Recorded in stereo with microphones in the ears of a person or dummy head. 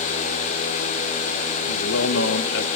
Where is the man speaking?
70° left (ahead or behind), 0.8 m.